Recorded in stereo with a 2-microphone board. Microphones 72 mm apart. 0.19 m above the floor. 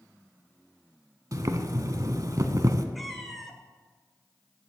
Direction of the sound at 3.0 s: Centre (ahead or behind).